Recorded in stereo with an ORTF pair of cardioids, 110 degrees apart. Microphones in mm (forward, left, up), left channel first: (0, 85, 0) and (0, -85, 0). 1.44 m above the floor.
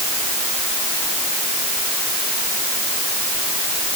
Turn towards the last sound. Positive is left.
No sound to turn to.